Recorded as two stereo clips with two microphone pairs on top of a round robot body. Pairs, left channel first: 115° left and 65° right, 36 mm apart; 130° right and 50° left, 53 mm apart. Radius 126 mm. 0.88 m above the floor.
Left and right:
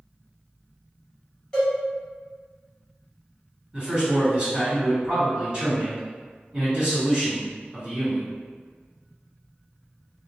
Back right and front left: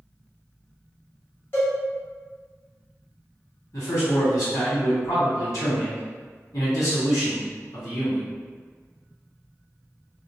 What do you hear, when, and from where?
1.5 s a cowbell: 175° right, 1.5 m
3.7 s a man speaking: 125° right, 1.9 m